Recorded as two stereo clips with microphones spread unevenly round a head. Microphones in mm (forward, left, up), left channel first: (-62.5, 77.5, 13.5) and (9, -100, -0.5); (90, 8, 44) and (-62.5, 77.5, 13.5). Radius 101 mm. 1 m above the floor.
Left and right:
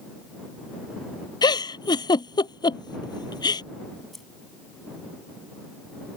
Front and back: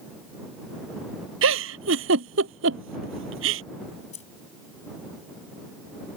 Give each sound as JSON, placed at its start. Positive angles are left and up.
{"t": 1.4, "sound": "a giggle", "azimuth_deg": 180}
{"t": 4.1, "sound": "keys jangling", "azimuth_deg": 25}